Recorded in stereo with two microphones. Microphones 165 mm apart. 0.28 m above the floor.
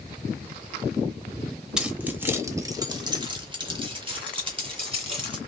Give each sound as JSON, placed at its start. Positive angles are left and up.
{"t": 1.8, "sound": "keys jangling", "side_deg": -5, "distance_m": 0.8}